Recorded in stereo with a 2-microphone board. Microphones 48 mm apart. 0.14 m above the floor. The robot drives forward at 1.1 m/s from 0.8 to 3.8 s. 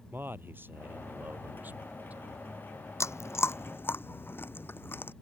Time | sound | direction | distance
0.1 | a man speaking | 50° right (ahead or behind) | ?
3.0 | chewing | 85° left | ?